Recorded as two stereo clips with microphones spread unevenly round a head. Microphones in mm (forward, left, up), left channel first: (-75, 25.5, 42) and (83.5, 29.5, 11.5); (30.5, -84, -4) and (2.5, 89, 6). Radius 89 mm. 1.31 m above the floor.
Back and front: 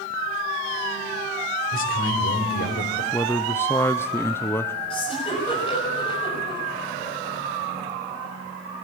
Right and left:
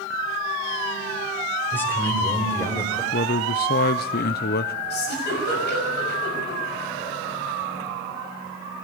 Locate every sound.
1.7 s a man speaking: 160° right, 4 m
3.1 s a man speaking: 95° right, 0.6 m
4.9 s a giggle: 120° right, 6.5 m